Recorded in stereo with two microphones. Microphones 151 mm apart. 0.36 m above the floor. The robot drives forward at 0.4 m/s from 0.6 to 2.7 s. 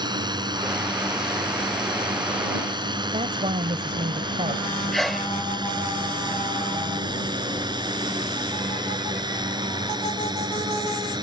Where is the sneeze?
Centre (ahead or behind).